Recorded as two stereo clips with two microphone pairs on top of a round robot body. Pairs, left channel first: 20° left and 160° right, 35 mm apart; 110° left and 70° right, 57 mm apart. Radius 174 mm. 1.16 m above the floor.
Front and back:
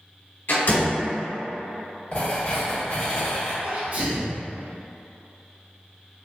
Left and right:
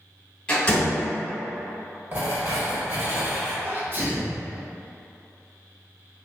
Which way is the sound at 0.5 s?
35° left.